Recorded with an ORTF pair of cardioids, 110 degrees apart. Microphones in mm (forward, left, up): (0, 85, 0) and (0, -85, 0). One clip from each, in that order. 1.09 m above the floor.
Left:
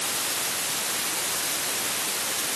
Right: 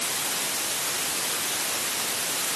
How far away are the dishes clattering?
No dishes clattering in this recording.